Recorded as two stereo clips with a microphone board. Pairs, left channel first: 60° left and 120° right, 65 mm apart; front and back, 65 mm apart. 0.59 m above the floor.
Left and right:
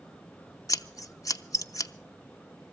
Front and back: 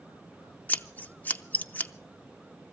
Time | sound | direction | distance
0.7 | scissors | 60° left | 0.6 m